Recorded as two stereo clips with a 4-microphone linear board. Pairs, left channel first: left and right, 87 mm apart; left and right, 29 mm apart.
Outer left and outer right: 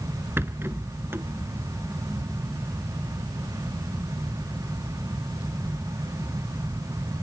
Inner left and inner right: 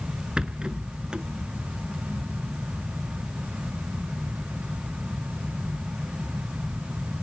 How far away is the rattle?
About 0.8 m.